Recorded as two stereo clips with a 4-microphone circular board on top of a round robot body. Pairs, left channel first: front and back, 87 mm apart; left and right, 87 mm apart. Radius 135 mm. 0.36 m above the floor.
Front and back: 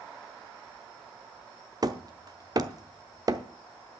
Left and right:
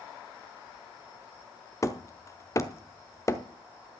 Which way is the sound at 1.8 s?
140° left.